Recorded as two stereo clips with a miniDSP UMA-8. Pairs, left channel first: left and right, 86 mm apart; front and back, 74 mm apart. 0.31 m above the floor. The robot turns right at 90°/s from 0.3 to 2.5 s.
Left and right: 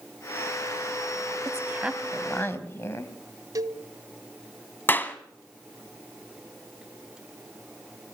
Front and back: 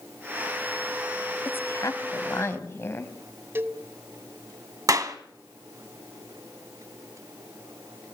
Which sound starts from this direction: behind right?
A cowbell, at 3.5 s.